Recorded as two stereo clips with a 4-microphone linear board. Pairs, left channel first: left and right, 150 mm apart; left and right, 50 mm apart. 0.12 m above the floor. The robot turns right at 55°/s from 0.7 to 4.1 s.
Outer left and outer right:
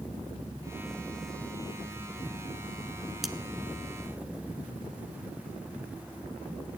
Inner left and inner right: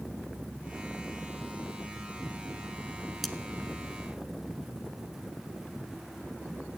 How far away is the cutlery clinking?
About 0.8 m.